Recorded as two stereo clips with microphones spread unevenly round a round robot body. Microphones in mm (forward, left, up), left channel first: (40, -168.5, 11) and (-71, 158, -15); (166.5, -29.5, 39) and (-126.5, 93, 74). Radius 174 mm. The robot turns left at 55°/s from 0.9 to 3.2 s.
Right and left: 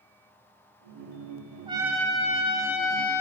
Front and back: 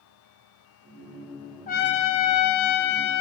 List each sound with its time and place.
1.7 s a trumpet: 40° left, 0.6 m; by 3.2 s 45° right, 0.6 m